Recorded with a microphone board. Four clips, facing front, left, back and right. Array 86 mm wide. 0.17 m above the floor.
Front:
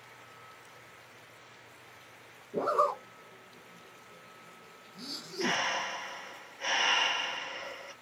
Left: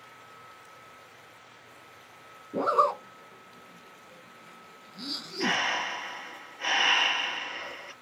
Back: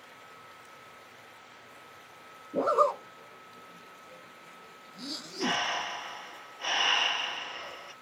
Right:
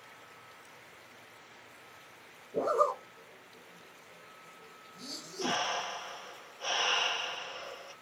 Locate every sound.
2.5 s a zipper: 100° left, 0.6 m
5.4 s breathing: 75° left, 3 m